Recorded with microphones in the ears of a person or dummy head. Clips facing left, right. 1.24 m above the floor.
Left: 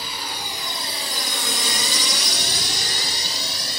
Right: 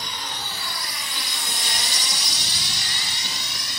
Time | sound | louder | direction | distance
0.0 | a drone | left 2 dB | 5° left (ahead or behind) | ?